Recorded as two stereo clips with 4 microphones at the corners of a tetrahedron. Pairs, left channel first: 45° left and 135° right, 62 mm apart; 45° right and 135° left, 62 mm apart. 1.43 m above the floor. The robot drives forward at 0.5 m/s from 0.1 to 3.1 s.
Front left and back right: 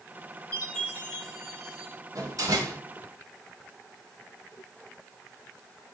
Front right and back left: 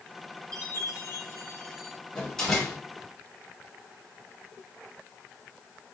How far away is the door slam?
About 2.5 m.